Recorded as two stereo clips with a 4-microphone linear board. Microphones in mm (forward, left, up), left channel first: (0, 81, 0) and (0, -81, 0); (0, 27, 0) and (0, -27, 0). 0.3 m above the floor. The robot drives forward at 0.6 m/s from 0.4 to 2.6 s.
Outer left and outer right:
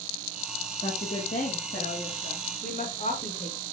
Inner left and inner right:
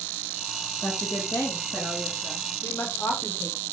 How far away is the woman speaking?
About 8.5 m.